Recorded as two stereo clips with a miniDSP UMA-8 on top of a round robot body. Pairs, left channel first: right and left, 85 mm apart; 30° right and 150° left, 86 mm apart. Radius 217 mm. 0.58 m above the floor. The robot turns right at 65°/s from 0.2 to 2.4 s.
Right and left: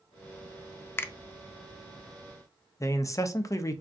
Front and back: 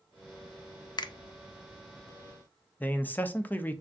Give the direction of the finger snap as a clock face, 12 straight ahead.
1 o'clock.